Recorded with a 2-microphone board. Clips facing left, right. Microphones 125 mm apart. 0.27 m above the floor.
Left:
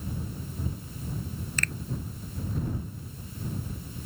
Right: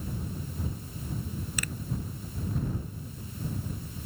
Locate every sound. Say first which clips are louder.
1.6 s a finger snap: left 2 dB; 10° right (ahead or behind)